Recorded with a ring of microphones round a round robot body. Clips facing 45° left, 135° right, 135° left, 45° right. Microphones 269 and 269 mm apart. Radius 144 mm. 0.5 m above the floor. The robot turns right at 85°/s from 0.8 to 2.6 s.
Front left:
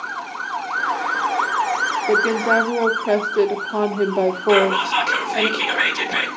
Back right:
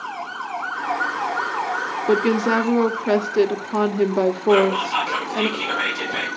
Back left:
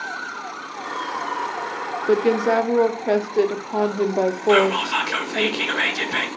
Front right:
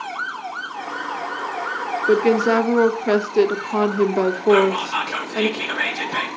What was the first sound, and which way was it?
A woman speaking, 130° right.